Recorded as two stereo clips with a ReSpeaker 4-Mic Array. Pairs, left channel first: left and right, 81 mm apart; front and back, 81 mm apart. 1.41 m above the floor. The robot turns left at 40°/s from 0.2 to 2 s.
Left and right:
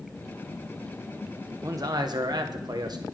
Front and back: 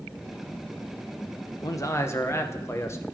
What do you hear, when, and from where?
1.6 s a man speaking: 40° right, 0.9 m; by 3.0 s 55° right, 0.9 m